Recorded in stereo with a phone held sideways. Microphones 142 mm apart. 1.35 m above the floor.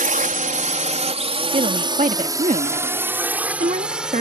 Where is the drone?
75° right (ahead or behind); by 4.2 s 5° right (ahead or behind).